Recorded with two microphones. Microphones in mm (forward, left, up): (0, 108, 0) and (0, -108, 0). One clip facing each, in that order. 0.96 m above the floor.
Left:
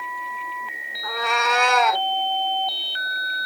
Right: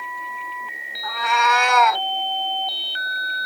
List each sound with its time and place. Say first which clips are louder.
1.0 s a cat meowing: right 1 dB; 50° left (ahead or behind), 1.4 m; by 2.0 s 30° left (ahead or behind), 1.6 m